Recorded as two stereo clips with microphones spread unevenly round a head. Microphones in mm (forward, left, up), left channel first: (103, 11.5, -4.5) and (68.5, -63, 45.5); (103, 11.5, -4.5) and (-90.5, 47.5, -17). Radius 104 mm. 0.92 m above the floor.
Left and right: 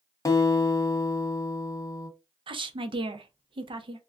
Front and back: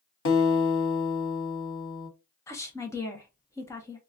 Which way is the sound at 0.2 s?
10° left.